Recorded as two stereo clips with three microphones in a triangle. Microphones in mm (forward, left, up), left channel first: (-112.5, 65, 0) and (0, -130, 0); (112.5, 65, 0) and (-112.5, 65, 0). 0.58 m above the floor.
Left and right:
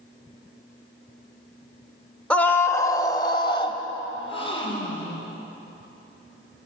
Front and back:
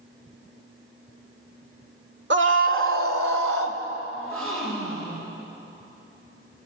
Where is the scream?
155° right, 1.6 m; by 3.8 s 175° right, 3 m.